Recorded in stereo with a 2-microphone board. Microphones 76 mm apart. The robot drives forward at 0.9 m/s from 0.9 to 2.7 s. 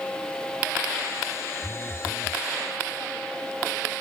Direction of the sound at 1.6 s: 60° right (ahead or behind).